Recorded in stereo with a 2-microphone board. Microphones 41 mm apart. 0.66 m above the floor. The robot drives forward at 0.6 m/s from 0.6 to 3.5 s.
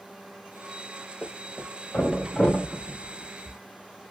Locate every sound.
1.2 s a thud: 30° left (ahead or behind), 2.0 m; by 3.6 s 20° left (ahead or behind), 3 m